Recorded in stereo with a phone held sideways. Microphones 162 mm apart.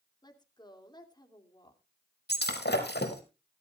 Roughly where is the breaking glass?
Left.